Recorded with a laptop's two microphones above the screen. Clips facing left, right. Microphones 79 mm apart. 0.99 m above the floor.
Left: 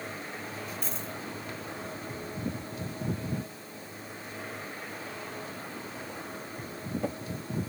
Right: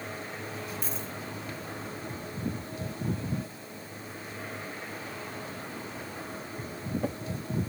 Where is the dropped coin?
5° right (ahead or behind), 1.3 m.